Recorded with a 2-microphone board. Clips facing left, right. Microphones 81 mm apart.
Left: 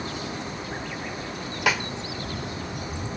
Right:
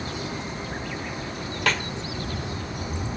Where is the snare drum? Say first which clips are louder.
Left 1 dB; 10° left (ahead or behind), 0.6 m.